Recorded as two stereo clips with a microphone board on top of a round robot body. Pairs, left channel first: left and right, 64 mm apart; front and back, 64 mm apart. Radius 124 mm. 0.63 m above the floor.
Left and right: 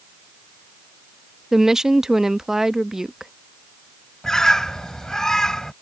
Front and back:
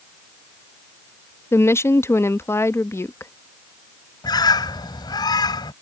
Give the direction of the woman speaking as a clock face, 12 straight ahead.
12 o'clock.